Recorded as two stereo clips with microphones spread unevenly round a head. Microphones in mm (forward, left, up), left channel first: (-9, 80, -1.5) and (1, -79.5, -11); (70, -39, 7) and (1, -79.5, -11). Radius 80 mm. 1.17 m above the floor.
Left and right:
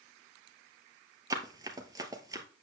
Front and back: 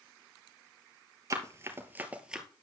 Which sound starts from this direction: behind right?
Running footsteps, at 1.3 s.